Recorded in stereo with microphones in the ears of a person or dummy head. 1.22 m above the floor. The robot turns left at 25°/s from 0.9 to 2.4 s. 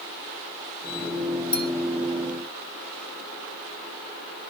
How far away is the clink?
About 1.0 m.